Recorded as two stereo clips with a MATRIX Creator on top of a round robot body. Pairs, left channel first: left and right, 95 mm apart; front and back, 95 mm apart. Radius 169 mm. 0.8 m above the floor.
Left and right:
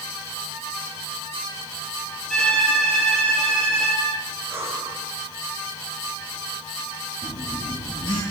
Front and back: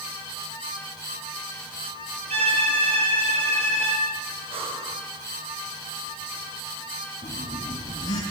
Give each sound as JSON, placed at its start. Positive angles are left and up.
{"t": 2.3, "sound": "a violin", "azimuth_deg": 175, "distance_m": 5.5}
{"t": 4.5, "sound": "breathing", "azimuth_deg": -160, "distance_m": 4.5}
{"t": 7.2, "sound": "a phone buzzing", "azimuth_deg": 50, "distance_m": 8.5}